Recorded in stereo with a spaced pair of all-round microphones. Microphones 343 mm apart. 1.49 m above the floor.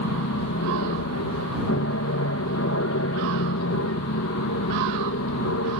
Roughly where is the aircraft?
Left.